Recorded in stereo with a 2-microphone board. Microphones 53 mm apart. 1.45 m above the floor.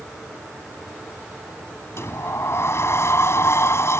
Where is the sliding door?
55° left (ahead or behind).